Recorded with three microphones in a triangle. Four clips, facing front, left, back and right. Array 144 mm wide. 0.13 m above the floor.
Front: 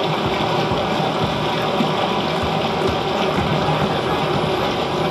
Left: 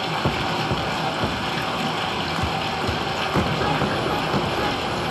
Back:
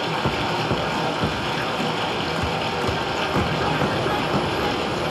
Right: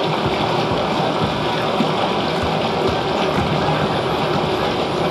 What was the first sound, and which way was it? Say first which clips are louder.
Running water: right 6 dB, front 4 dB; 55° right.